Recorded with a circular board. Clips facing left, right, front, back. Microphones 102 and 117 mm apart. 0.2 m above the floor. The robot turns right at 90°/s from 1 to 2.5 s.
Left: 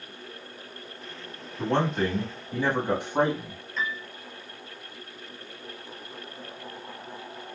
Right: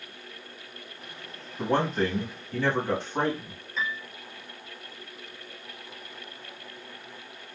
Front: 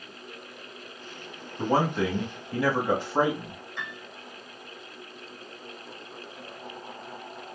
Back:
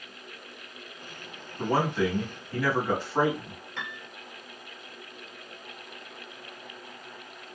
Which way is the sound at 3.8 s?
175° right.